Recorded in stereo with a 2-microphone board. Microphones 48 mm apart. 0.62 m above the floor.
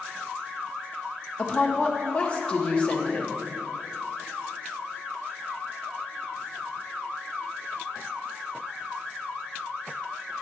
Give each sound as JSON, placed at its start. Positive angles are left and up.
{"t": 1.4, "sound": "a woman speaking", "side_deg": 20, "distance_m": 0.7}